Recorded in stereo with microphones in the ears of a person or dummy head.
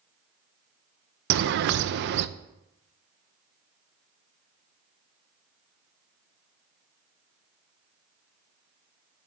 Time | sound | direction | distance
1.3 | a bird | 55° right (ahead or behind) | 0.7 m